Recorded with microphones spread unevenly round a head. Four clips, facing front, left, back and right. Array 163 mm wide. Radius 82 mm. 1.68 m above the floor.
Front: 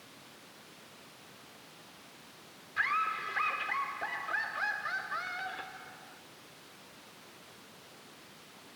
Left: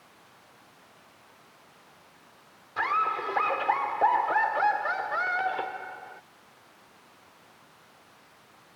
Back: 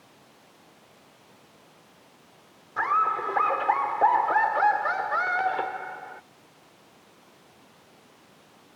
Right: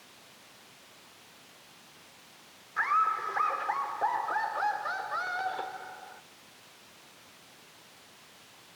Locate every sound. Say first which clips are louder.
2.8 s laughter: even, back 9 dB; 140° left; by 6.2 s 165° left